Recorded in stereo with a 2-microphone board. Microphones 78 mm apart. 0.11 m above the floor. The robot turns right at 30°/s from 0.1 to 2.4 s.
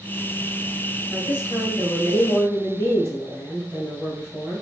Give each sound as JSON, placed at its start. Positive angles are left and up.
{"t": 1.1, "sound": "a woman speaking", "azimuth_deg": 25, "distance_m": 1.5}